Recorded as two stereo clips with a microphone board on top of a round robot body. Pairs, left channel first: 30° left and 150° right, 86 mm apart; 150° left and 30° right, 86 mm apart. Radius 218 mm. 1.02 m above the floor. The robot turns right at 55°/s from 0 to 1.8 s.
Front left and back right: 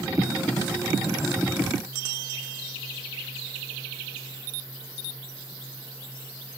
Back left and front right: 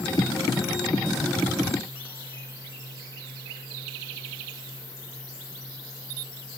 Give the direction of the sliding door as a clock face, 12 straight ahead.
I don't hear a sliding door.